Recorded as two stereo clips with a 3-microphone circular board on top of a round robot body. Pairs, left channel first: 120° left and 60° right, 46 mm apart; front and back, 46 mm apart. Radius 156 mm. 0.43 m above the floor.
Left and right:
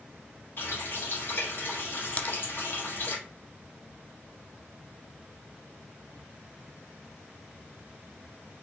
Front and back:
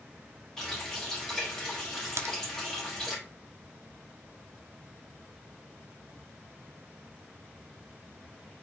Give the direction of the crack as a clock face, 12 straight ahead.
6 o'clock.